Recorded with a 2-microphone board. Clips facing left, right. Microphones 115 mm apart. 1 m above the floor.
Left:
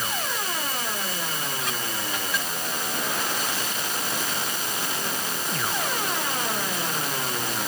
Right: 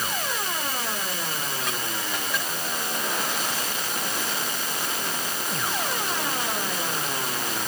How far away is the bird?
I don't hear a bird.